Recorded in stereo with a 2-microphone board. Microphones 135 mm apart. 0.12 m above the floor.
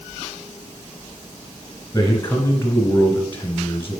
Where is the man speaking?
20° left (ahead or behind), 1.3 m.